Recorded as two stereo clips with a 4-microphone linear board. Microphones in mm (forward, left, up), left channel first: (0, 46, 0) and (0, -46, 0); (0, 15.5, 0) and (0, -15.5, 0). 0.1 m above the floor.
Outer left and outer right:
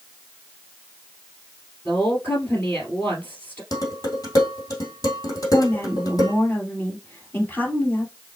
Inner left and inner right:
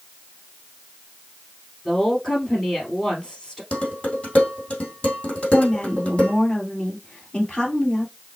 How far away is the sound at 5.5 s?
About 2.5 m.